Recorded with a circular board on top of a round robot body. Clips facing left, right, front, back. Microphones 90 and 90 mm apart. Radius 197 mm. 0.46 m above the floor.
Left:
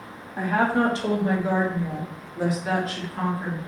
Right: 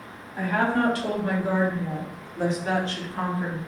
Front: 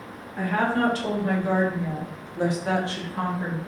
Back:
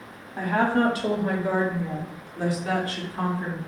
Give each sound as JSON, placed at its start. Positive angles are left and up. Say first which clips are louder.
{"t": 0.4, "sound": "a woman speaking", "louder": "left 2 dB, back 1 dB", "azimuth_deg": 130, "distance_m": 1.6}